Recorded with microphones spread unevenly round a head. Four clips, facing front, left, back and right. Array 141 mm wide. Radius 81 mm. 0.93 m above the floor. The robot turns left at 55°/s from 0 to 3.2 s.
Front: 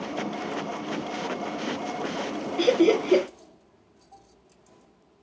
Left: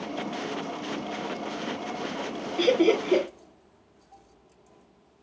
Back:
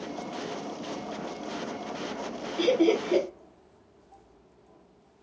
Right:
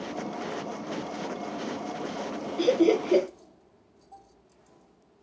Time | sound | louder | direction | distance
2.6 | laughter | even, front 3 dB | 55° left | 0.7 m